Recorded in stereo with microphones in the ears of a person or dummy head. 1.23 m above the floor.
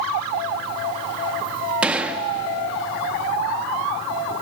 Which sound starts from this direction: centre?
A gunshot, at 1.8 s.